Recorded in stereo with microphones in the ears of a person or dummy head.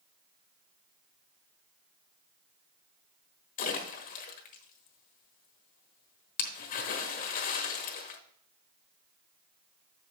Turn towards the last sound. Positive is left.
turn(degrees=40)  # may be behind; listen again after turning